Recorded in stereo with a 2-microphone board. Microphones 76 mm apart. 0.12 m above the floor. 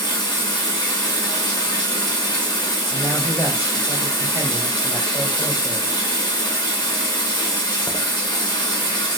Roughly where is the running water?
Left.